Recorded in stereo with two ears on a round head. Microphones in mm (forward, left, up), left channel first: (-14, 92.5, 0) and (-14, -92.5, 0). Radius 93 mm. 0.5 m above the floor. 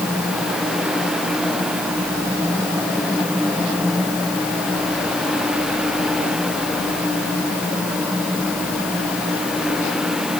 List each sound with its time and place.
Only background noise.